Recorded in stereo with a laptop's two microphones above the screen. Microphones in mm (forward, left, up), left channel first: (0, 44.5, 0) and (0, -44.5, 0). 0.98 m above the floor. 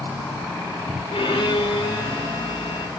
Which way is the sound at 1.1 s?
80° left.